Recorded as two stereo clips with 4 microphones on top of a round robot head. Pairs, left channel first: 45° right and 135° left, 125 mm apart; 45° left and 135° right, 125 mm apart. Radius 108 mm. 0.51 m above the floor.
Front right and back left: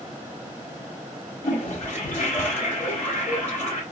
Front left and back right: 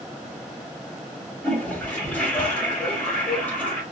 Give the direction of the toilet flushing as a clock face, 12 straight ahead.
1 o'clock.